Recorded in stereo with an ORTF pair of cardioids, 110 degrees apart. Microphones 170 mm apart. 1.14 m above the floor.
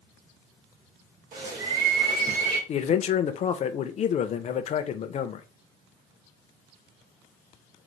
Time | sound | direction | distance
1.3 | a bird | 60° right | 1.4 m
2.7 | a man speaking | 45° left | 0.5 m